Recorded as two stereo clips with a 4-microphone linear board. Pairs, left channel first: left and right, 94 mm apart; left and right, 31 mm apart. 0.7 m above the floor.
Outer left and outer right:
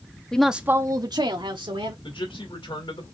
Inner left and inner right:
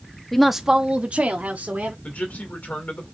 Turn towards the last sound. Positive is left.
turn(degrees=70)  # may be behind; listen again after turning